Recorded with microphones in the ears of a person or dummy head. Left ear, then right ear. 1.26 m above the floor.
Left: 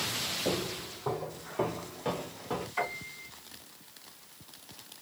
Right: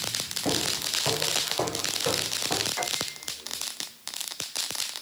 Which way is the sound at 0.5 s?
20° right (ahead or behind).